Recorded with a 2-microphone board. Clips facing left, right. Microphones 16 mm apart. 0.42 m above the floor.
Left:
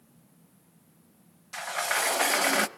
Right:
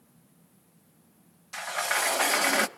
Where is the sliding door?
5° left (ahead or behind), 0.5 m.